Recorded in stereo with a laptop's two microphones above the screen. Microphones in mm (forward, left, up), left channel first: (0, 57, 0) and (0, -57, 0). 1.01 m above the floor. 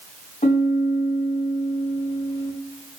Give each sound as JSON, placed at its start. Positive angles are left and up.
{"t": 0.4, "sound": "a piano", "side_deg": 80, "distance_m": 0.8}